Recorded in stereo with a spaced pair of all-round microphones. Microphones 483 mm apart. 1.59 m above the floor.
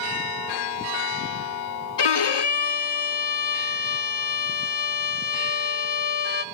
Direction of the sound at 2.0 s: 60° left (ahead or behind).